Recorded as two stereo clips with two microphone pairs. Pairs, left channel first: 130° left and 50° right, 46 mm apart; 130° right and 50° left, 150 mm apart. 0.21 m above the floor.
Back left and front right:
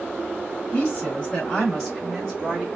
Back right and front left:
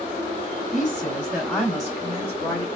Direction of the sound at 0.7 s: 105° left.